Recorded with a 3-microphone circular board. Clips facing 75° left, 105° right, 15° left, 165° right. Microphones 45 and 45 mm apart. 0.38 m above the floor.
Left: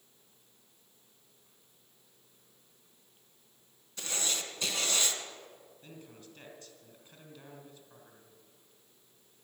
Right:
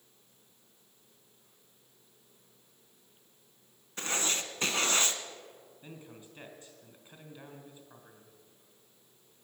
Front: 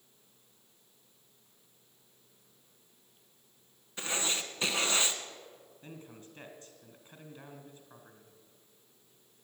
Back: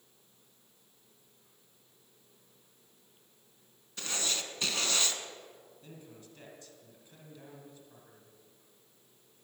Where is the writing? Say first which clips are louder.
Right 3 dB, front 2 dB; 55° right, 1.1 m.